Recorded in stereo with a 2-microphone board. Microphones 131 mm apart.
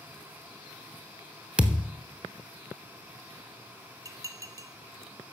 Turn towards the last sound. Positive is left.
turn(degrees=-25)  # may be behind; listen again after turning